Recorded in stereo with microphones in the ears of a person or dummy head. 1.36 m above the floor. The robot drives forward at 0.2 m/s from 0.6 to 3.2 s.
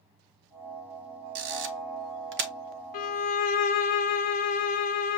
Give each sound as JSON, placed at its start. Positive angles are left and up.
{"t": 1.4, "sound": "a camera shutter", "side_deg": -65, "distance_m": 0.8}
{"t": 2.9, "sound": "a violin", "side_deg": 45, "distance_m": 0.7}